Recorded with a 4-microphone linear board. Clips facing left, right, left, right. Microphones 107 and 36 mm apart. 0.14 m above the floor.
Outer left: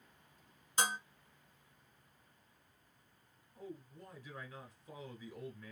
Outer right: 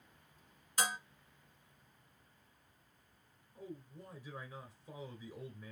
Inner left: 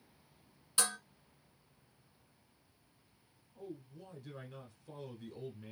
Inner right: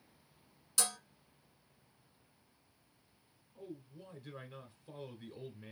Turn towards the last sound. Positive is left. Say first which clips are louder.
# even, inner left 1 dB
turn(degrees=-10)  # may be behind; listen again after turning